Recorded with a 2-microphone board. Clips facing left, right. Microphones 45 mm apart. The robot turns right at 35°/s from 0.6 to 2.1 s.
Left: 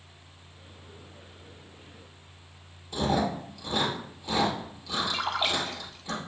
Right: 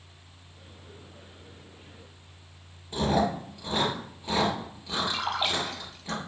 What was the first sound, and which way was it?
Chewing, 25° right (ahead or behind).